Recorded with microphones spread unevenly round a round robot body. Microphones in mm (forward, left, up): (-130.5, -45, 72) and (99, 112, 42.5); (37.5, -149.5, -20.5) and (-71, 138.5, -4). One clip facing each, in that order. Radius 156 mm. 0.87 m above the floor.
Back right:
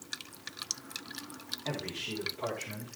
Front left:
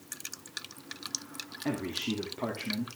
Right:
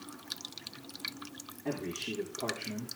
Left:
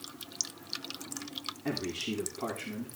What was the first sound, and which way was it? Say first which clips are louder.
A man speaking: front left 7 dB, left 2 dB; 50° left.